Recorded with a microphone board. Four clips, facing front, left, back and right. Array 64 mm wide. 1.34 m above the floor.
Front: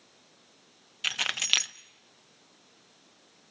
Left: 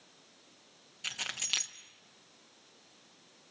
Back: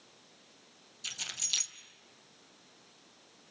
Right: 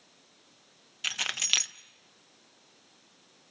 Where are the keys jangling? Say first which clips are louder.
Right 7 dB, front 13 dB; 20° right, 0.6 m.